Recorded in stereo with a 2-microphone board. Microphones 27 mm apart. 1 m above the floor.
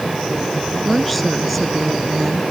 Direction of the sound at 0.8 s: 10° left (ahead or behind).